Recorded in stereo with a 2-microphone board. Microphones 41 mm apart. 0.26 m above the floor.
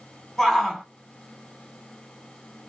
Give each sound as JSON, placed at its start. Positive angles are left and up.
{"t": 0.4, "sound": "a shout", "side_deg": 10, "distance_m": 1.9}